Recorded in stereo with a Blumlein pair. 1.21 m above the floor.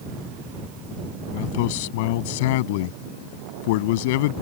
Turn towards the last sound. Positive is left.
turn(degrees=50)